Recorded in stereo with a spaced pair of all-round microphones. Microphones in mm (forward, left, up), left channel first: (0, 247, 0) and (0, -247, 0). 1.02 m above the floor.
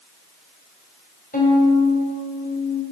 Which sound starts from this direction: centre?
A violin, at 1.3 s.